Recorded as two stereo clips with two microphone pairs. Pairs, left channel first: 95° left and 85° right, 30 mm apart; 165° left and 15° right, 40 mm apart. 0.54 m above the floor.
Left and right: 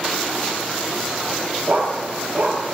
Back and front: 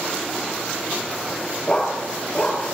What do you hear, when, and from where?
1.7 s a dog barking: 115° right, 4.5 m